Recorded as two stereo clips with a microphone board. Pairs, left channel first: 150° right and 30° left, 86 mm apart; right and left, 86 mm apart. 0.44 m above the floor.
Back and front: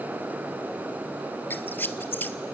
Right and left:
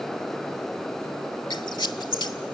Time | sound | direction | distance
1.5 | a squeak | 85° right | 0.7 m